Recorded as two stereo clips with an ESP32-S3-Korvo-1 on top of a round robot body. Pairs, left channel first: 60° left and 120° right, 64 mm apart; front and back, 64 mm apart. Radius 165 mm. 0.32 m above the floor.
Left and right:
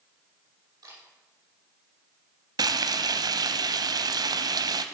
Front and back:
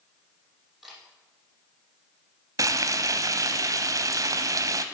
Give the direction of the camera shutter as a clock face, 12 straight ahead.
3 o'clock.